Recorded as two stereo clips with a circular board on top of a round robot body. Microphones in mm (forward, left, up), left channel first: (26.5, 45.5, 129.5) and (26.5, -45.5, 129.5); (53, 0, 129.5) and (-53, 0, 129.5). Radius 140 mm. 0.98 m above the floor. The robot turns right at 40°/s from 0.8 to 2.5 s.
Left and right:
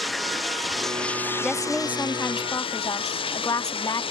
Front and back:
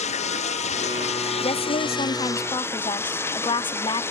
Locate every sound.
0.0 s running water: straight ahead; by 4.1 s 70° left
1.4 s a woman speaking: straight ahead; by 4.0 s 40° left